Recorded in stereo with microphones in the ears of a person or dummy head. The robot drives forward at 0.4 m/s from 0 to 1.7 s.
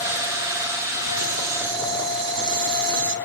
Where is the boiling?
65° right (ahead or behind), 1.9 m; by 3.1 s 70° right (ahead or behind), 1.8 m.